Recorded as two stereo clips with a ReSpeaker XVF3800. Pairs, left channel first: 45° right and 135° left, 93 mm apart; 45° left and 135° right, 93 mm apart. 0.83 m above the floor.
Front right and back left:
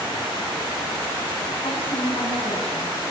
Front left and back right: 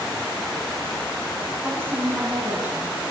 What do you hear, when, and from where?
1.6 s a woman speaking: 65° right, 8.5 m; by 3.0 s 60° right, 10 m